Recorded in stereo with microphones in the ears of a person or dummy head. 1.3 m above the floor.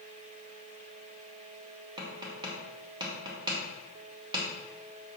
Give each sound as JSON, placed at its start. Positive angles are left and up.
{"t": 2.0, "sound": "tapping", "side_deg": -25, "distance_m": 1.1}